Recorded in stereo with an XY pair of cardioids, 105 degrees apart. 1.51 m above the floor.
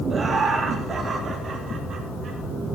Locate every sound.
0.1 s laughter: 20° right, 2.5 m; by 2.4 s 35° right, 5 m